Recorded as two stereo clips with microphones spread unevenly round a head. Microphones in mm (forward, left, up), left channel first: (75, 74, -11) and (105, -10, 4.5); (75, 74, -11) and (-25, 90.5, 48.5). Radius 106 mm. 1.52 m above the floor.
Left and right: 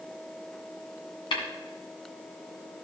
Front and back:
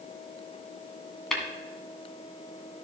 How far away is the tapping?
About 2 m.